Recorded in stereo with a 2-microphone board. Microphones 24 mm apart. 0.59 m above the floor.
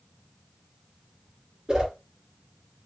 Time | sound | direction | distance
1.7 | a whoosh | 35° right (ahead or behind) | 3 m